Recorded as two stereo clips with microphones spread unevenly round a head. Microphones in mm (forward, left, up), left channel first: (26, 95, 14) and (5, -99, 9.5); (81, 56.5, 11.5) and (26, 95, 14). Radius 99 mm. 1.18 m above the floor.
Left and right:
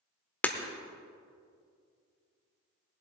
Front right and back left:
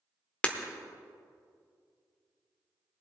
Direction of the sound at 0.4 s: 20° left.